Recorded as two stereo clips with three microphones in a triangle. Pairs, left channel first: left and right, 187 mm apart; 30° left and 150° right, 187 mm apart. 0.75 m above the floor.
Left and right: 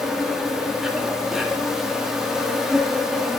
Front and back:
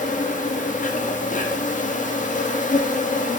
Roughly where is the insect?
Ahead.